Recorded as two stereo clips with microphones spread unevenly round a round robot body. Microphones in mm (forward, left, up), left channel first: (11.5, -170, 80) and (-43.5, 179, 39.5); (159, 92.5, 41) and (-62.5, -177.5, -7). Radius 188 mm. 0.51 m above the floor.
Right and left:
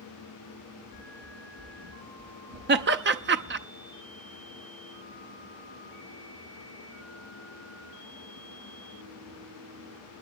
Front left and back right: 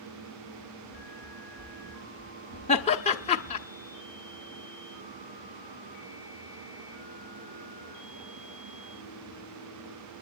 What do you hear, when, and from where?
0.9 s running footsteps: 150° left, 10 m; by 3.7 s 165° left, 7.5 m
2.7 s laughter: 125° left, 1.0 m